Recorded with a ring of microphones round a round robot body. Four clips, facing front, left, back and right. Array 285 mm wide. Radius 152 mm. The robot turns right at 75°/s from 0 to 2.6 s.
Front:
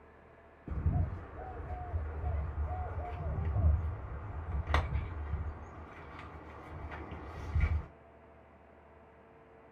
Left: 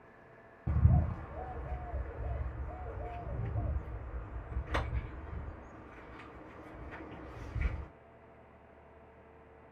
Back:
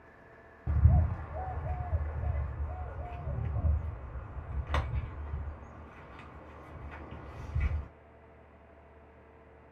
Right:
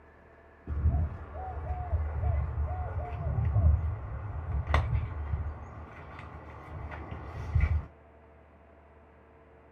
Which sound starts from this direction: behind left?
A bird, at 0.7 s.